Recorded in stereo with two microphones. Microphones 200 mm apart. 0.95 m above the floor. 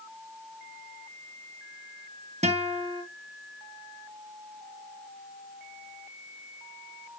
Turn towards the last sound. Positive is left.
turn(degrees=-35)  # may be behind; listen again after turning